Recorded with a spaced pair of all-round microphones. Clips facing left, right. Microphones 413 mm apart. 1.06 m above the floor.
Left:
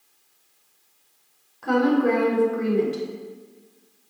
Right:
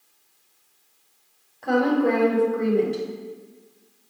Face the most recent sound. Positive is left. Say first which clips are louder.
# left 1 dB
turn(degrees=20)  # may be behind; listen again after turning